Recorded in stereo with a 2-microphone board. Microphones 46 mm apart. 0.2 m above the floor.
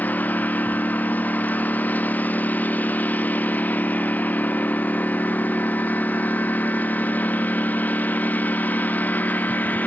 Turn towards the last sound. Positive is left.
turn(degrees=40)  # may be behind; listen again after turning